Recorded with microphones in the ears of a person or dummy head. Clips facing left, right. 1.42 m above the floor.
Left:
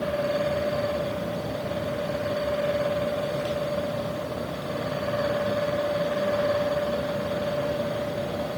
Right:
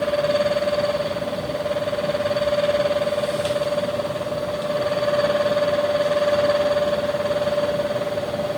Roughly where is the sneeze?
I don't hear a sneeze.